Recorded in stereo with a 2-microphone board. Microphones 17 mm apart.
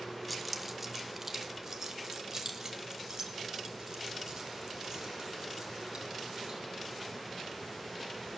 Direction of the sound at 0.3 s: Centre (ahead or behind).